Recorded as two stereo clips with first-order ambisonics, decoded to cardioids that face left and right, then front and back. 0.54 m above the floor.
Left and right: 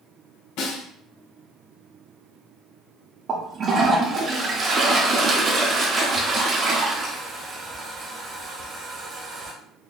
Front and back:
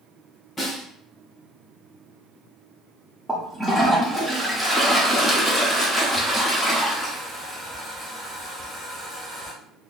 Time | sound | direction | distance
0.6 | a snare drum | 80° left | 1.9 m
3.3 | a toilet flushing | 100° right | 0.7 m